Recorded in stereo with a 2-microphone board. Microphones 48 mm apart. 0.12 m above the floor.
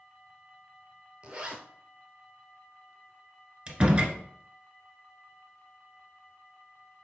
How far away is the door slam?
About 1.0 m.